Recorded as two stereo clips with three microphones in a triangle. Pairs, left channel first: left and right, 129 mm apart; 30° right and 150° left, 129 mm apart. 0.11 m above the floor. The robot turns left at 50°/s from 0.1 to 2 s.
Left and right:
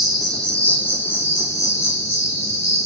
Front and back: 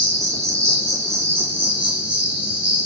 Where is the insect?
Straight behind, 0.9 m; by 2.9 s 85° left, 0.9 m.